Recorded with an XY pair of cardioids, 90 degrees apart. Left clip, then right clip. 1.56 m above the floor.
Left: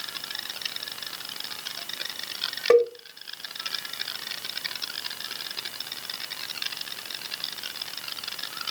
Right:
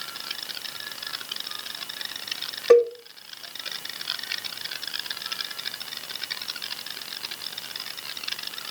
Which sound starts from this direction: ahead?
A cowbell, at 2.7 s.